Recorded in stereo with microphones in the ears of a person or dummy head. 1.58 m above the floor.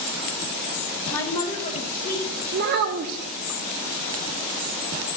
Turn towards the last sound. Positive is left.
turn(degrees=-50)  # may be behind; listen again after turning